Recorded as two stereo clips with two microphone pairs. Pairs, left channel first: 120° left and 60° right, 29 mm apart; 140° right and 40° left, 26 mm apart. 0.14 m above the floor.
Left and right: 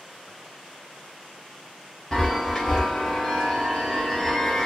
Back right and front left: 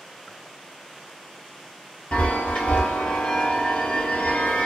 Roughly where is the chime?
Behind.